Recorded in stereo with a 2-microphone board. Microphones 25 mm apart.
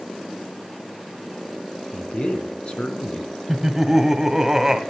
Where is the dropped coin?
I don't hear a dropped coin.